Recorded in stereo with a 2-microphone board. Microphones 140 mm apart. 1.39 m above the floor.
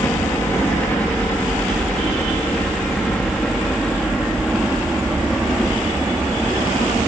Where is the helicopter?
15° left (ahead or behind); by 7.1 s 5° right (ahead or behind).